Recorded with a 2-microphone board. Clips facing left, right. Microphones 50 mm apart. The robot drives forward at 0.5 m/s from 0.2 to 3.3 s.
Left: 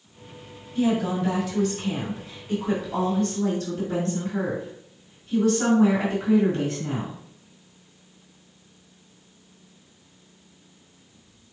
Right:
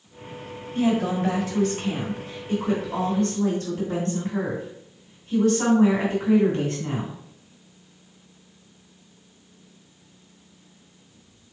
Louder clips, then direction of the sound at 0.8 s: Right 1 dB; 35° right (ahead or behind).